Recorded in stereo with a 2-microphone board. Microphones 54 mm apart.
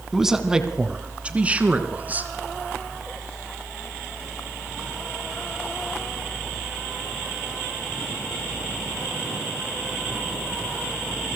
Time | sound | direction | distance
0.1 | a man speaking | 5° right (ahead or behind) | 2 m